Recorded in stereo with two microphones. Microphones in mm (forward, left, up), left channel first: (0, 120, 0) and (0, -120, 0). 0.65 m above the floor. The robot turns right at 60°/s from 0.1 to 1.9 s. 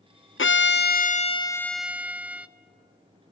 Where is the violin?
95° left, 0.5 m; by 2.5 s 175° right, 0.5 m.